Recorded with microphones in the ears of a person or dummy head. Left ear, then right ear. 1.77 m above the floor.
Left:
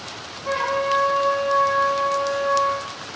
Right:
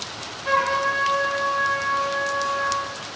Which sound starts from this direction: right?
A trumpet, at 0.5 s.